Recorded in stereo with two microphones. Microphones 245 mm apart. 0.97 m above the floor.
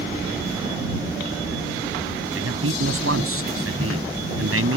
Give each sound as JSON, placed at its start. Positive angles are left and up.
{"t": 2.4, "sound": "a man speaking", "side_deg": -75}